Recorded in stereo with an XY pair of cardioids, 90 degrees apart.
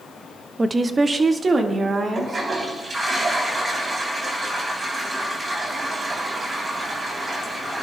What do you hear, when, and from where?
0.6 s a woman speaking: 30° right, 0.8 m; by 2.5 s 45° right, 2.5 m
2.1 s a toilet flushing: 40° right, 3 m